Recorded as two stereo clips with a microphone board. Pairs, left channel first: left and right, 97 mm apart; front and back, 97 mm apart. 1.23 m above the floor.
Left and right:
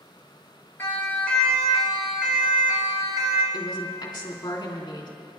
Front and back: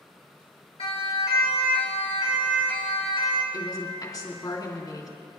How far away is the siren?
About 3 m.